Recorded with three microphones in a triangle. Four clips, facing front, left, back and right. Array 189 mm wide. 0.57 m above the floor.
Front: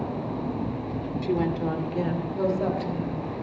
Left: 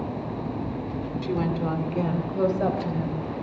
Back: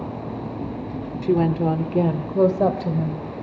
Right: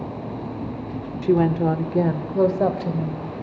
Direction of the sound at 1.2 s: 120° right.